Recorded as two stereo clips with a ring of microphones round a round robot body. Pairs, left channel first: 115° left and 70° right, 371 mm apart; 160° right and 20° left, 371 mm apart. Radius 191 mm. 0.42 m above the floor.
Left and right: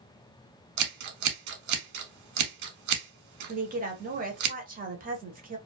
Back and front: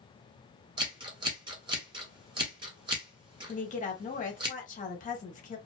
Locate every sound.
0.8 s scissors: 55° right, 0.9 m
3.5 s a woman speaking: 110° right, 0.9 m